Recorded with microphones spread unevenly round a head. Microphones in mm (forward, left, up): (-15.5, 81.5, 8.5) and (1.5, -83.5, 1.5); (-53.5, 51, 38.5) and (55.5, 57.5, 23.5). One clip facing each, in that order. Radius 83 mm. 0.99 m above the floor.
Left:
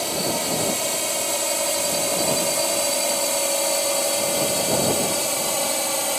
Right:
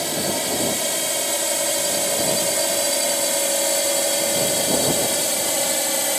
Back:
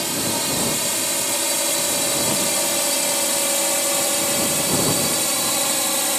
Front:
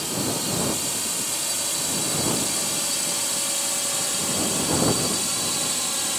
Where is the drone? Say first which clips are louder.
Right 1 dB, back 3 dB; 165° right; by 6.2 s 160° right.